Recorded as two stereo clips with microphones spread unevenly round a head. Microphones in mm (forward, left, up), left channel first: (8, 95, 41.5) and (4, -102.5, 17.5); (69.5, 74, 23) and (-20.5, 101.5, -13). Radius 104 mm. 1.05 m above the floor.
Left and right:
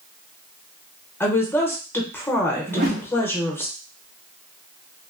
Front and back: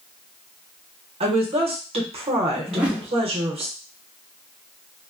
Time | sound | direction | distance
1.2 | a woman speaking | 170° left | 0.7 m
2.7 | a whoosh | 85° right | 0.6 m